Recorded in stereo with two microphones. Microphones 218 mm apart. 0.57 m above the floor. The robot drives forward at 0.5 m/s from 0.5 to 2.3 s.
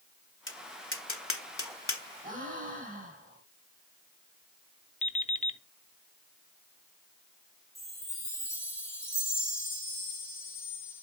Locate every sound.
0.5 s tapping: 60° left (ahead or behind), 1.1 m; by 2.0 s 70° left (ahead or behind), 1.1 m
2.2 s a gasp: 35° right (ahead or behind), 5 m
5.0 s an alarm clock: 30° left (ahead or behind), 0.6 m
7.8 s a chime: 10° left (ahead or behind), 3.5 m